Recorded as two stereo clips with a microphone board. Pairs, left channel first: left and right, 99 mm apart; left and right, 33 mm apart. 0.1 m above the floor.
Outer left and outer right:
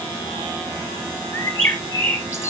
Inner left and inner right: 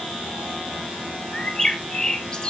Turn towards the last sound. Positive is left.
turn(degrees=25)  # may be behind; listen again after turning